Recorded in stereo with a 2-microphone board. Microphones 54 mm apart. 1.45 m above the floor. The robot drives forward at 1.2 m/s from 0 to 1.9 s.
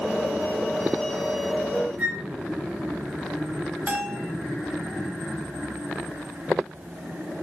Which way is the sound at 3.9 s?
35° right (ahead or behind).